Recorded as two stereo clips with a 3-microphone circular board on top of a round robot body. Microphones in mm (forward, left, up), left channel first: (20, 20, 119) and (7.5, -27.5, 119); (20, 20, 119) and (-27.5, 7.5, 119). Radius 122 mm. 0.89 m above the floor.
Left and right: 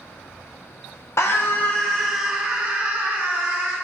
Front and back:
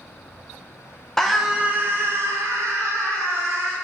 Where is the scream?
95° left, 0.6 m; by 3.7 s 155° right, 1.5 m.